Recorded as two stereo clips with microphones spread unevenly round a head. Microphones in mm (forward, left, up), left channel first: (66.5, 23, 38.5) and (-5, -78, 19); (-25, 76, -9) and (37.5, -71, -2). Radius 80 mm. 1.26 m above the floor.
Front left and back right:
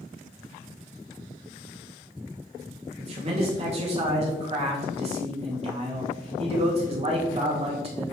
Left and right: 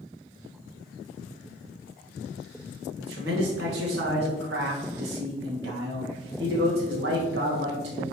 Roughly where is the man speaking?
Right.